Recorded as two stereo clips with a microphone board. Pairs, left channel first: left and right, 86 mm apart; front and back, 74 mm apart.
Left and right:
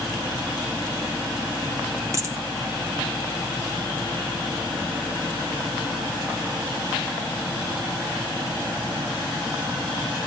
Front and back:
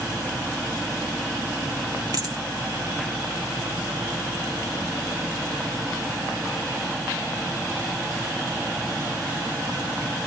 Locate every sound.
2.1 s a dropped coin: 145° right, 1.8 m